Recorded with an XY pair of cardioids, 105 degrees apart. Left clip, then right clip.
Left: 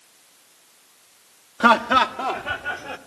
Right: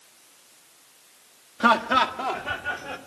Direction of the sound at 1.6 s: 30° left.